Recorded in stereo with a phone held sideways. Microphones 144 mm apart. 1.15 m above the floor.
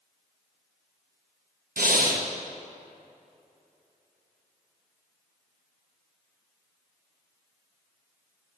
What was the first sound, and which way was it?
Breathing, 85° right.